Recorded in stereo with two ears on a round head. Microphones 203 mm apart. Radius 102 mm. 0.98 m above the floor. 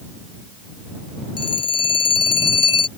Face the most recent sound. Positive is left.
turn(degrees=25)  # may be behind; listen again after turning